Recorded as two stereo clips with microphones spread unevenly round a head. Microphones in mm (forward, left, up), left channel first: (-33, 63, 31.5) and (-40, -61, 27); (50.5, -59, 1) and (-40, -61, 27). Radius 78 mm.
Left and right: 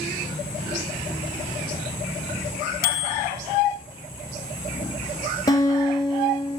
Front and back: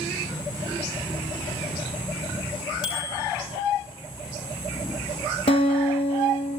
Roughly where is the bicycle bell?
Ahead left.